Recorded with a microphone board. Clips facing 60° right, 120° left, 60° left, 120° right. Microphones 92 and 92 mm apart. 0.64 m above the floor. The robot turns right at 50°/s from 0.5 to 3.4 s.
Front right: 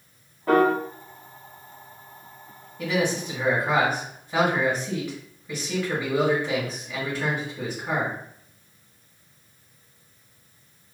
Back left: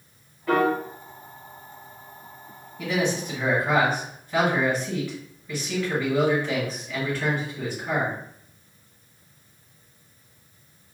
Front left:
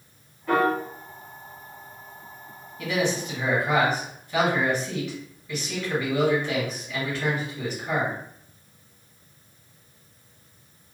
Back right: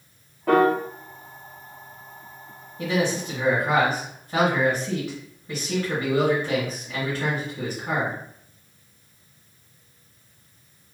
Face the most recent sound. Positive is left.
turn(degrees=-120)